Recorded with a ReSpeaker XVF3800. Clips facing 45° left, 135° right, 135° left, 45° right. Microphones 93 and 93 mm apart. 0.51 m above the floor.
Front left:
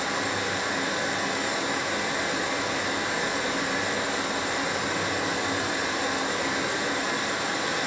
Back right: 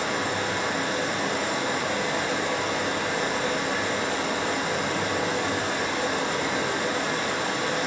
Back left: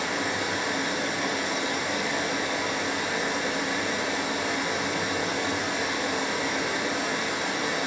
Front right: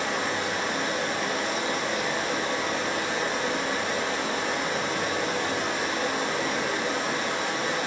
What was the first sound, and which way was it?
Running water, 95° right.